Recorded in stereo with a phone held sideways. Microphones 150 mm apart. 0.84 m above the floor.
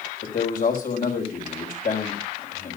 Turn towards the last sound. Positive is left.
turn(degrees=70)  # may be behind; listen again after turning